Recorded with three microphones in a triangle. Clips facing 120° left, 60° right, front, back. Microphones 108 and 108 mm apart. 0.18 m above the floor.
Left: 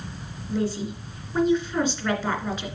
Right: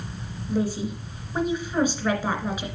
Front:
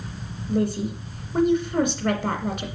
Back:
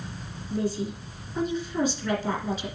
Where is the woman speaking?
20° left, 2 m.